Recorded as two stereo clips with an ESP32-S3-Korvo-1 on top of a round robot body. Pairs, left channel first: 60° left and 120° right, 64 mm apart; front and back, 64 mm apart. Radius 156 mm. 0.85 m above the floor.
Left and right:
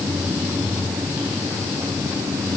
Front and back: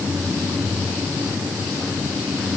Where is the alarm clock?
I don't hear an alarm clock.